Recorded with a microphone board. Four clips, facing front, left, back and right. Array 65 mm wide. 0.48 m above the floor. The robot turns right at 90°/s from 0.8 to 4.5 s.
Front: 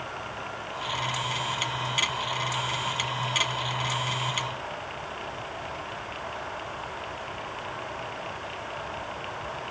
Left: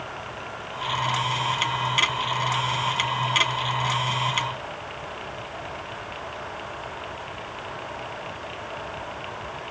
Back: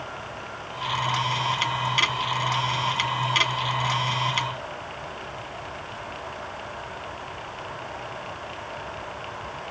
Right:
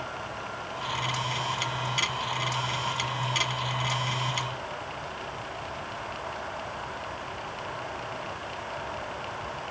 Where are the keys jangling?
No keys jangling in this recording.